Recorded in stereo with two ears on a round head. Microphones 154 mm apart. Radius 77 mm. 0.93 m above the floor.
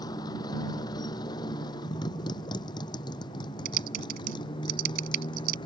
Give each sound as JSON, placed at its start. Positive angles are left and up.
{"t": 0.0, "sound": "a motorcycle", "side_deg": 25}
{"t": 3.6, "sound": "typing on a keyboard", "side_deg": -60}